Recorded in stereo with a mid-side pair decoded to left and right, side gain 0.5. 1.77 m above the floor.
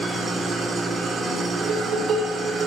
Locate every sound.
0.0 s an engine running: 40° right, 3.5 m
1.6 s dishes clattering: 60° right, 4.5 m